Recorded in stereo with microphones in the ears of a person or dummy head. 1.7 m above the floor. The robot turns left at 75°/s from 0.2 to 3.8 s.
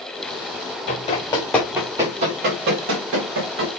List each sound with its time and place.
0.9 s running footsteps: 50° left (ahead or behind), 5.5 m; by 3.7 s 45° right (ahead or behind), 6 m